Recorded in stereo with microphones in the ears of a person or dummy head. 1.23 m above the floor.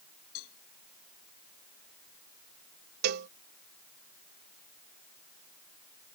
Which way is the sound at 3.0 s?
60° right (ahead or behind).